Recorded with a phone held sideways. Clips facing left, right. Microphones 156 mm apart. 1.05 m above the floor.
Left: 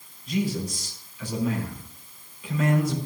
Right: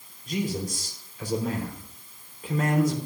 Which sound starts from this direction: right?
A man speaking, at 0.3 s.